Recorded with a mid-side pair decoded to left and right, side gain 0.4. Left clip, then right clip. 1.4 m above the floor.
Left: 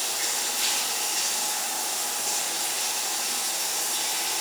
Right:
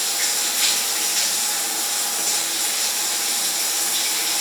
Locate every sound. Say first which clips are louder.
0.0 s running water: right 5 dB; 55° right, 9.5 m